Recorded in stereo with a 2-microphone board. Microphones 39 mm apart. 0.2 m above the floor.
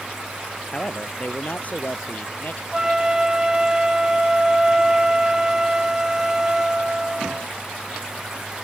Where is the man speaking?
25° left (ahead or behind); by 2.6 s 50° left (ahead or behind).